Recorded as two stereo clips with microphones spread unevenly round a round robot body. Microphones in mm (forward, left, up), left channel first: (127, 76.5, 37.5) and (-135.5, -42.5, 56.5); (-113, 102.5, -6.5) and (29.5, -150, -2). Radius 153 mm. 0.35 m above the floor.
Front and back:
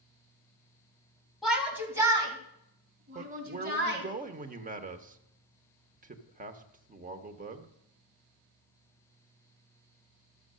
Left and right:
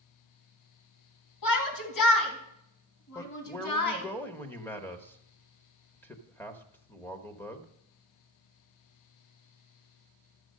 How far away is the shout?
About 3 m.